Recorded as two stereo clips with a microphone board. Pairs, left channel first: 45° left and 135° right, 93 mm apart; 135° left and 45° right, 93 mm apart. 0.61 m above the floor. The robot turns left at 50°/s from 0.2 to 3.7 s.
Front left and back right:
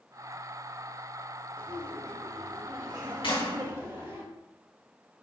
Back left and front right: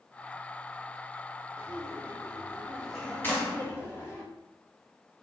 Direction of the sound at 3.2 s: 70° left.